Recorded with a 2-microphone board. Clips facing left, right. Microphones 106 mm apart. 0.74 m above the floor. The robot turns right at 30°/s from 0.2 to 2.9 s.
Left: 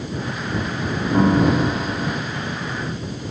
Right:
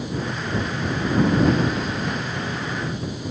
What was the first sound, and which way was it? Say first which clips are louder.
A piano: left 3 dB; 95° left.